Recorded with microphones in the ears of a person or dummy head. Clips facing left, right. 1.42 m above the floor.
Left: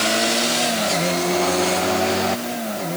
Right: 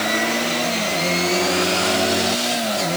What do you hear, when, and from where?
Only background noise.